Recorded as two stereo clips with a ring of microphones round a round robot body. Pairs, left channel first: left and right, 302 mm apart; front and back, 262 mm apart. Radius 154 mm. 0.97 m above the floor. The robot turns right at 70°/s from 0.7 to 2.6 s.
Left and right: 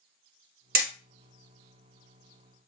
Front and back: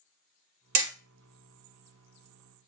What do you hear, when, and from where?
0.8 s hammering: 150° right, 1.3 m; by 0.9 s 140° right, 1.3 m